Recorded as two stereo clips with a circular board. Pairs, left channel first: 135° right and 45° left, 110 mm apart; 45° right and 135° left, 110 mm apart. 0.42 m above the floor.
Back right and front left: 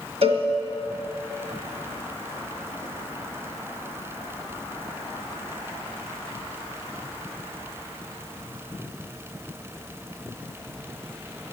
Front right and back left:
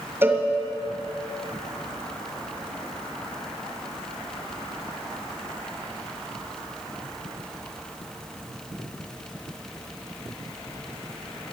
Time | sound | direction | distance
0.2 | a cowbell | 65° left | 1.8 m